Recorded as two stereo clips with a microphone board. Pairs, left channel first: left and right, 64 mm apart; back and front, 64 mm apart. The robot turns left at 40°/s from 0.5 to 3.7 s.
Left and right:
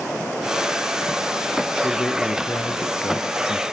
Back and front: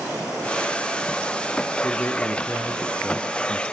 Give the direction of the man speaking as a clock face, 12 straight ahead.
7 o'clock.